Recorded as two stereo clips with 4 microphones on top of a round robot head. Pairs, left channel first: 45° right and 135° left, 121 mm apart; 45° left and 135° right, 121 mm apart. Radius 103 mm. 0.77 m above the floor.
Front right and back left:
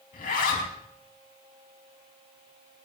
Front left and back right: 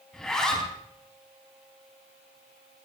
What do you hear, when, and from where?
0.1 s a zipper: 40° right, 4 m